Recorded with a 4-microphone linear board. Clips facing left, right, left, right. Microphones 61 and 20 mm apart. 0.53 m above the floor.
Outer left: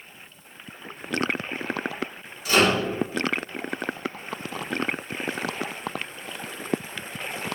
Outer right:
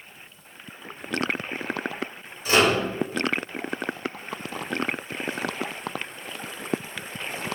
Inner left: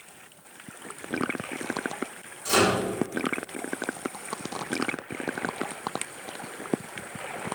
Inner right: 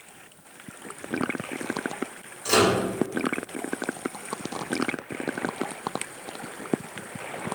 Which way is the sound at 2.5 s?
35° right (ahead or behind).